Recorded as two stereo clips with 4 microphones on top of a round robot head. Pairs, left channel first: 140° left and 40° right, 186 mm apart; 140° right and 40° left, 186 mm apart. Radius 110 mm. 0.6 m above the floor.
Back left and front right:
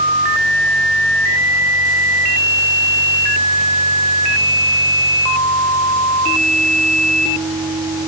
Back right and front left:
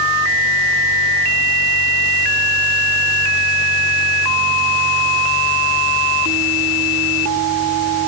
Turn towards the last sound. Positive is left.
No sound to turn to.